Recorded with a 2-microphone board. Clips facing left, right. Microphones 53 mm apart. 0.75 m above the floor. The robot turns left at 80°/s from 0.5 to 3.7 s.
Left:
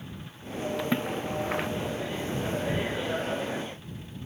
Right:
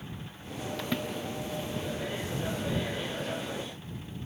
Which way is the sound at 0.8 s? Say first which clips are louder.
Left 3 dB; 15° left (ahead or behind).